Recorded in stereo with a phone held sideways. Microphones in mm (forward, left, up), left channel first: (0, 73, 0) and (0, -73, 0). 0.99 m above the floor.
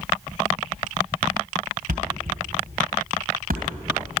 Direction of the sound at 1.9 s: 80° right.